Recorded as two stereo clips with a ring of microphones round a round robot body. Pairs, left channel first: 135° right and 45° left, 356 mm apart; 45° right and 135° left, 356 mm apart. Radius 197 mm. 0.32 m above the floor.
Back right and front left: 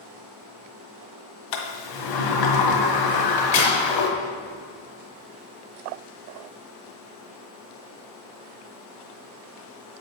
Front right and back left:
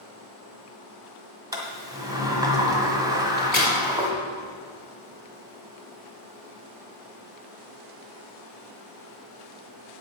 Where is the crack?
135° right, 4.5 m.